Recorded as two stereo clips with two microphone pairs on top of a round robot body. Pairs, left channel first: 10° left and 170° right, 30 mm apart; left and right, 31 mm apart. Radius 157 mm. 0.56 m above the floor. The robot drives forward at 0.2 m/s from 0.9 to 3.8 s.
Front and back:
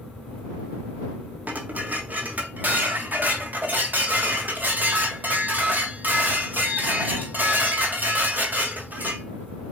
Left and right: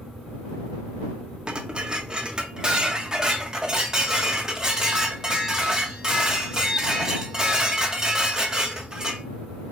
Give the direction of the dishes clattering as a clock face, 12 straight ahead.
5 o'clock.